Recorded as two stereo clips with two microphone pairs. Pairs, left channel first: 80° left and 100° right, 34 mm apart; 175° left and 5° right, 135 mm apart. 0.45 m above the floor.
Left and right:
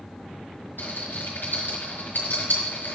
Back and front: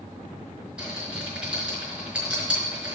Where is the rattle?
80° left, 4.5 m.